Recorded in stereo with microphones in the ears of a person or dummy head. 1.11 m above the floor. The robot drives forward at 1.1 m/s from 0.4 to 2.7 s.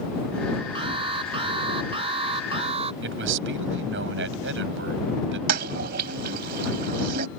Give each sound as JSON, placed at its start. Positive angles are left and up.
{"t": 0.8, "sound": "an alarm", "side_deg": -30}
{"t": 3.0, "sound": "a man speaking", "side_deg": -75}
{"t": 5.5, "sound": "a toilet flushing", "side_deg": -60}